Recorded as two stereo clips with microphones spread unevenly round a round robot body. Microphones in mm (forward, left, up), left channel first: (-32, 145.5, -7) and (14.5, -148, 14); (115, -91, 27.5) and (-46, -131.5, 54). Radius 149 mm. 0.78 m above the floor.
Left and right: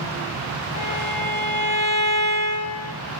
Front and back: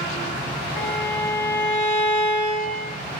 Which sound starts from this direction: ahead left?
A violin, at 0.8 s.